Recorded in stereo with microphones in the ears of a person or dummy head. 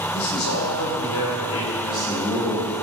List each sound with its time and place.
0.1 s a man speaking: 80° left, 3.5 m
1.8 s a man speaking: 5° right (ahead or behind), 4 m